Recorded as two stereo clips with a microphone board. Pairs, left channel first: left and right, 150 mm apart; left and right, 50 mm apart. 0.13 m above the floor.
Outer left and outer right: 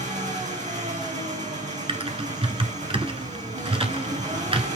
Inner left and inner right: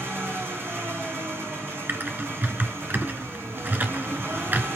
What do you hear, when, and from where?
0.0 s an engine running: 55° right (ahead or behind), 3.5 m
1.9 s typing on a keyboard: 40° right (ahead or behind), 1.2 m